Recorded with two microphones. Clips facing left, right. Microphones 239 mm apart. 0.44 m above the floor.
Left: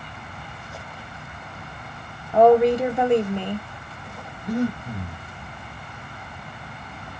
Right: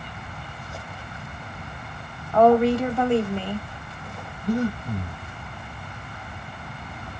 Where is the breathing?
10° right (ahead or behind), 1.6 m.